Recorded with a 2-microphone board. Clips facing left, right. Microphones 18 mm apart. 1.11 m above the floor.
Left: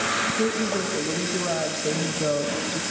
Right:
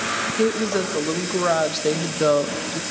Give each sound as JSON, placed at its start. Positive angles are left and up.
{"t": 0.3, "sound": "a woman speaking", "side_deg": -60, "distance_m": 2.0}